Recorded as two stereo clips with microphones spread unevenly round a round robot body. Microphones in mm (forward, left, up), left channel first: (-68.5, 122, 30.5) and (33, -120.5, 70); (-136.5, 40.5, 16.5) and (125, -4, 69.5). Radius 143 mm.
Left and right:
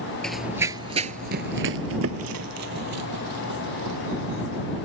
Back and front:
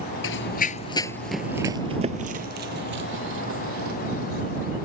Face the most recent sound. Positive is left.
turn(degrees=-40)